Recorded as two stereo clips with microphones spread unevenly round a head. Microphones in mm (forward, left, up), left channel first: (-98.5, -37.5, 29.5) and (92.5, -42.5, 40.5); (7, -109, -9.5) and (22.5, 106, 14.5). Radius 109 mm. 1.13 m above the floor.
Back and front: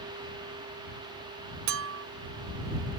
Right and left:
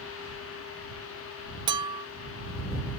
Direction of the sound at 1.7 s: 20° left.